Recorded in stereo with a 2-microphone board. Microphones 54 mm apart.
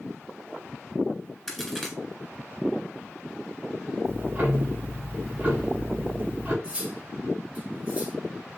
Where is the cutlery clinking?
25° right (ahead or behind), 3.5 m.